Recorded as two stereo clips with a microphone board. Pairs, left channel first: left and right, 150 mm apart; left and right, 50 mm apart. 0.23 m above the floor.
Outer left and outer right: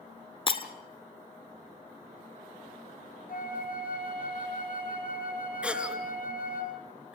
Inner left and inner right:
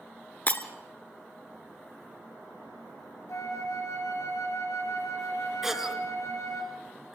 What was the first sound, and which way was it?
Breaking glass, 35° left (ahead or behind).